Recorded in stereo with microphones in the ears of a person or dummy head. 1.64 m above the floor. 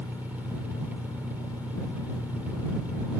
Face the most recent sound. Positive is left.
turn(degrees=-10)  # may be behind; listen again after turning